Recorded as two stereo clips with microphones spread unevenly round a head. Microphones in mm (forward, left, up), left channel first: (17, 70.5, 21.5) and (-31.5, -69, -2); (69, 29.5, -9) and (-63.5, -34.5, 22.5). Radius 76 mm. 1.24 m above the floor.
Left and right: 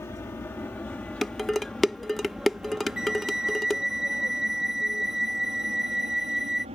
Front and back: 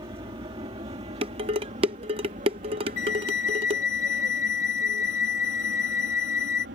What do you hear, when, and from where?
0.0 s an aircraft: 145° left; by 6.8 s 155° right
1.2 s dishes clattering: 155° left
3.0 s a flute: 15° right